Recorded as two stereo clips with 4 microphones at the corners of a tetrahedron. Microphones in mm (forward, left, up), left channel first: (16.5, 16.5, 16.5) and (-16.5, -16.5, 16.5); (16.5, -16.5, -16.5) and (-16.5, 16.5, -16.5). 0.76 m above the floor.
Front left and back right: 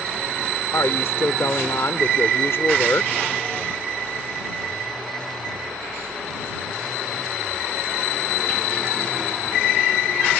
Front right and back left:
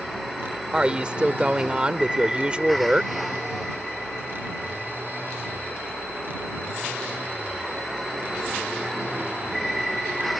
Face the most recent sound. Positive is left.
turn(degrees=70)